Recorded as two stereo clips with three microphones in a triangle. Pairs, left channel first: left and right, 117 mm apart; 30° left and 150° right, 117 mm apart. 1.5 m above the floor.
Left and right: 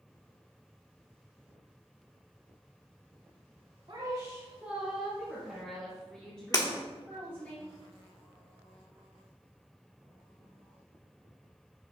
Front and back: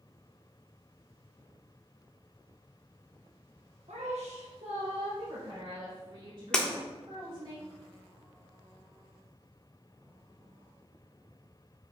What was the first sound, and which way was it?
A woman speaking, 135° right.